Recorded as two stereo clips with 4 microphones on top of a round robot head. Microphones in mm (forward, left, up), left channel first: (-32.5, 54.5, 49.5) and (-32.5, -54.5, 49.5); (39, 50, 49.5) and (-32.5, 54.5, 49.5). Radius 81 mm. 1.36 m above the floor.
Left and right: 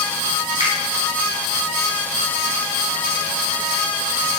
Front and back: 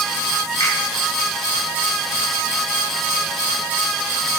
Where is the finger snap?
45° right, 1.7 m.